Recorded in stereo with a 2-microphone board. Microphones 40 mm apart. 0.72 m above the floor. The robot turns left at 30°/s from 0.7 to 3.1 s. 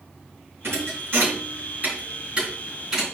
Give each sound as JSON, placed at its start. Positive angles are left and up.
{"t": 0.6, "sound": "a thud", "side_deg": -80, "distance_m": 4.0}